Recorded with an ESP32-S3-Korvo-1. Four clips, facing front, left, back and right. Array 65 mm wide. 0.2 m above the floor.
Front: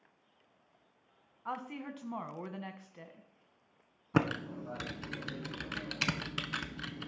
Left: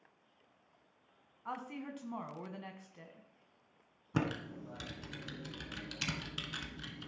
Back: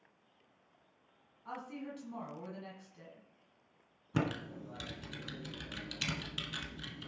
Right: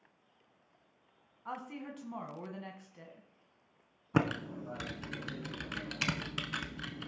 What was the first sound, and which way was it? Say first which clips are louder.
A woman speaking: even, front 4 dB; 5° left.